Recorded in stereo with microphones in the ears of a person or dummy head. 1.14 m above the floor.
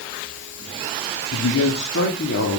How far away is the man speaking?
About 2.0 m.